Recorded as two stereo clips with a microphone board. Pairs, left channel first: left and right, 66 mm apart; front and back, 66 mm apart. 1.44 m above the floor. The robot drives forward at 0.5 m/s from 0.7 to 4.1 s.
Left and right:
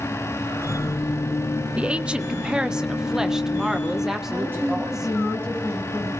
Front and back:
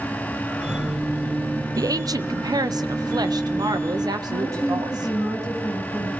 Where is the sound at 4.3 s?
150° right, 9.5 m.